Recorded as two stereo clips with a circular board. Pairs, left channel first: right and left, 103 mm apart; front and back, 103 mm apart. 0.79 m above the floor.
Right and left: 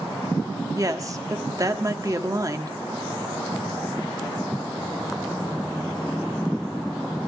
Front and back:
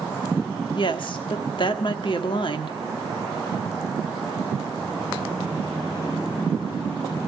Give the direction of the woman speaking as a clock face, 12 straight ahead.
11 o'clock.